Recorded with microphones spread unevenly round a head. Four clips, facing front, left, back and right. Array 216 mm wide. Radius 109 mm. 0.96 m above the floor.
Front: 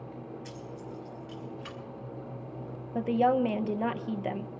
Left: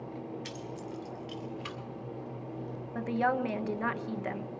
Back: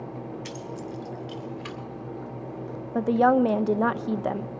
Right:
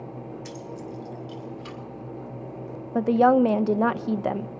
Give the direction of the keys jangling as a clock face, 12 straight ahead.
6 o'clock.